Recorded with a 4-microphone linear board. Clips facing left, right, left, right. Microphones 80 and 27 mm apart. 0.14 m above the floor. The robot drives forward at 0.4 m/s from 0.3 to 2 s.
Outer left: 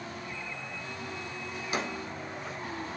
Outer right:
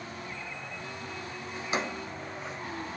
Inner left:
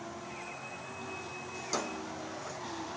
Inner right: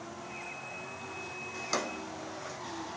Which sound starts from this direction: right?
A drawer, at 1.5 s.